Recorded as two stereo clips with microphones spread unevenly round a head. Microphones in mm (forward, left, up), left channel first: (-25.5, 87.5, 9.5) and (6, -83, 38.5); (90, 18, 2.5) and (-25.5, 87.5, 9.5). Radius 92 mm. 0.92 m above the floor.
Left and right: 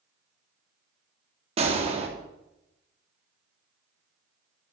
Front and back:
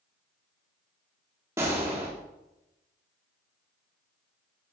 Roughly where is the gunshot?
Behind right.